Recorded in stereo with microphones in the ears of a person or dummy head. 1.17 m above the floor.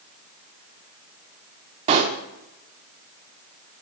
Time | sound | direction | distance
1.9 | a pop | 30° right (ahead or behind) | 0.8 m